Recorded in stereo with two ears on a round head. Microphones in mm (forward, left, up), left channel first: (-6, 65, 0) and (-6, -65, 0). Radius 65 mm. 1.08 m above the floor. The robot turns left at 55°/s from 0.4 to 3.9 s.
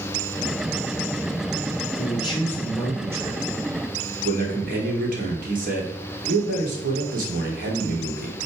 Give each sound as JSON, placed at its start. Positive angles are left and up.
{"t": 2.0, "sound": "a man speaking", "azimuth_deg": 45, "distance_m": 3.0}